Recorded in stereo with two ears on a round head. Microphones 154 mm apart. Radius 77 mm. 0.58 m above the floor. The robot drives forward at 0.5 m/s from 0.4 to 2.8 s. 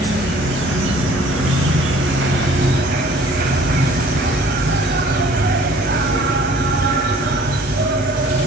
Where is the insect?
65° right (ahead or behind), 1.4 m; by 8.5 s 60° right (ahead or behind), 1.4 m.